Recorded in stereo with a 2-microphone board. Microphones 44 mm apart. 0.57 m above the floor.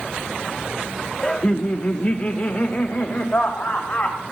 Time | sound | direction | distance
1.2 | laughter | 15° left (ahead or behind) | 0.8 m